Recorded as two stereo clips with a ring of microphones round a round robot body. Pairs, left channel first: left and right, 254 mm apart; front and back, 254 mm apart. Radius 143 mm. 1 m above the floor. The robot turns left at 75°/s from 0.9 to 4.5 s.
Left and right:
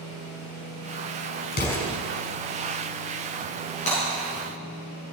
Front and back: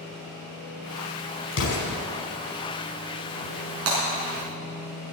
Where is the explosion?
40° left, 5 m; by 2.0 s 5° left, 5 m.